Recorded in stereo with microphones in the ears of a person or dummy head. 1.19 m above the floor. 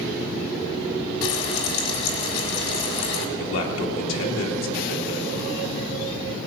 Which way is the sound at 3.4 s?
75° left (ahead or behind).